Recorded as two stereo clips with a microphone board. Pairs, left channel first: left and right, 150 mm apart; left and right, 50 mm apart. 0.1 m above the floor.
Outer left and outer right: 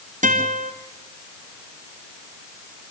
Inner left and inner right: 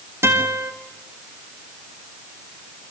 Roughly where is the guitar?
Right.